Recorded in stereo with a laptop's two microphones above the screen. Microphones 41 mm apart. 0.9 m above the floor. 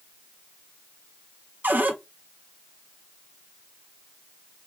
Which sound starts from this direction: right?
A cupboard door, at 1.6 s.